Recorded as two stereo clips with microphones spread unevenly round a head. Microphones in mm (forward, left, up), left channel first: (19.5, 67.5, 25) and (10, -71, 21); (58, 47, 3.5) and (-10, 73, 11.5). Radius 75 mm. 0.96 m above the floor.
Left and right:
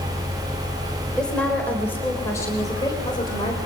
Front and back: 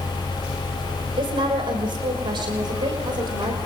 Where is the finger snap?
No finger snap in this recording.